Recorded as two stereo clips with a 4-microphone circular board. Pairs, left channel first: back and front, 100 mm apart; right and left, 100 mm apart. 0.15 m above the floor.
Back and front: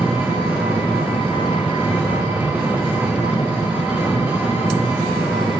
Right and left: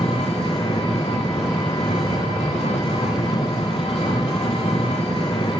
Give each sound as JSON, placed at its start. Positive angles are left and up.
{"t": 0.0, "sound": "an engine running", "azimuth_deg": -70, "distance_m": 5.5}